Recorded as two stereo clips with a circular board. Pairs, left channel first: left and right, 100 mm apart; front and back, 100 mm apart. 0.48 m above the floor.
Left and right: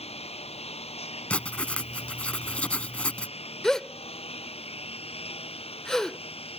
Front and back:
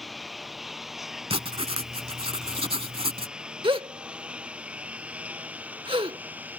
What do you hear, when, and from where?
0.0 s a lawn mower: 90° left; by 6.6 s 105° left
1.3 s writing: 165° left
3.6 s a gasp: 175° left